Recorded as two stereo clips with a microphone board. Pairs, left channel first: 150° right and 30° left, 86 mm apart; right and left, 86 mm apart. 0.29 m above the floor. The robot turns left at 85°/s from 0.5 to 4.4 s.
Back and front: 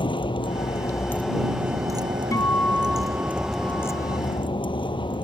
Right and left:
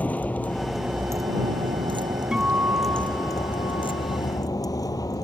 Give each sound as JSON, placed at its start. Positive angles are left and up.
{"t": 0.0, "sound": "a vehicle", "azimuth_deg": -165}
{"t": 2.3, "sound": "a guitar", "azimuth_deg": 170}